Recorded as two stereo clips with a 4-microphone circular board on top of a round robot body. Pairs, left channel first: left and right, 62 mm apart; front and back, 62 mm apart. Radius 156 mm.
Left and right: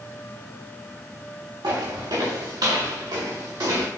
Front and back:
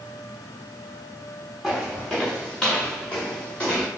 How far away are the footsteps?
About 4.5 m.